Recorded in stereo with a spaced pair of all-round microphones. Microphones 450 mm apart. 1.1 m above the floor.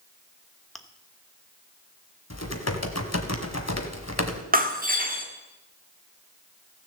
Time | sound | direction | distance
0.8 | chewing | centre (ahead or behind) | 1.0 m
2.3 | typing on a keyboard | 35° left (ahead or behind) | 1.4 m
4.5 | breaking glass | 20° right (ahead or behind) | 1.6 m